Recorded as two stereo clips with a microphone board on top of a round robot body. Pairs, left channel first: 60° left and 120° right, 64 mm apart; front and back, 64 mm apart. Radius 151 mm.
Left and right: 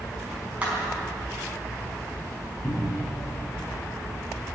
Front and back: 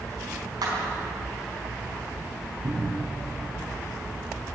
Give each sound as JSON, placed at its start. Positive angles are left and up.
{"t": 0.6, "sound": "a clap", "azimuth_deg": 170, "distance_m": 4.5}
{"t": 2.6, "sound": "a cupboard door", "azimuth_deg": 135, "distance_m": 4.5}